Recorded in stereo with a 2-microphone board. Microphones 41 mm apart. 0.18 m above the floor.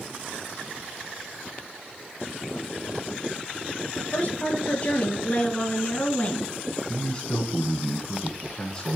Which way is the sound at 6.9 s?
15° left (ahead or behind).